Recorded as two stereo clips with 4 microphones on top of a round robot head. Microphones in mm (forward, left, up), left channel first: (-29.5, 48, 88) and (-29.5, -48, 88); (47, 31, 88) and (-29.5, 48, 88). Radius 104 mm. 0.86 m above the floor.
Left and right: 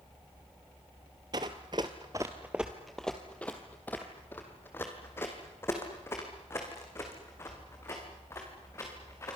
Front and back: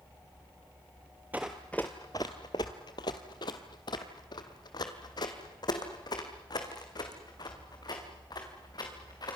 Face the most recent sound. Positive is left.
turn(degrees=25)